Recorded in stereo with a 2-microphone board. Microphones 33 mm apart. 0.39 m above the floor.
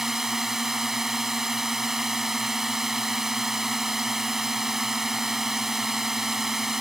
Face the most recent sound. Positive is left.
turn(degrees=-15)  # may be behind; listen again after turning